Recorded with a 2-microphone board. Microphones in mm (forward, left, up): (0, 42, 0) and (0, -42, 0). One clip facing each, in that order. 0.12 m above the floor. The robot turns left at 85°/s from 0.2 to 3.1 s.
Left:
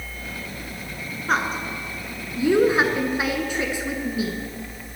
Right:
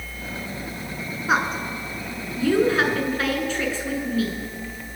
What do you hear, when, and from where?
1.3 s a woman speaking: 5° right (ahead or behind), 1.3 m; by 4.4 s 15° left (ahead or behind), 1.3 m